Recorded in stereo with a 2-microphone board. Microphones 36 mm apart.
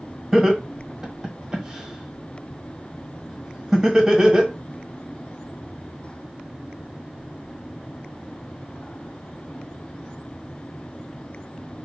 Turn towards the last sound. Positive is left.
turn(degrees=-15)  # may be behind; listen again after turning